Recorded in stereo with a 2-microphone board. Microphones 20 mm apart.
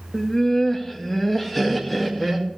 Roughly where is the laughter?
Left.